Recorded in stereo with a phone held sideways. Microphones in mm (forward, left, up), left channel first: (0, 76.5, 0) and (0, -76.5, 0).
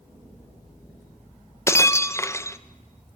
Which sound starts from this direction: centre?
Breaking glass, at 1.7 s.